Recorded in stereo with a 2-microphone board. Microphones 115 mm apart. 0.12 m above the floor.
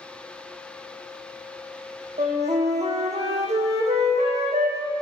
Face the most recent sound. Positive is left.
turn(degrees=-80)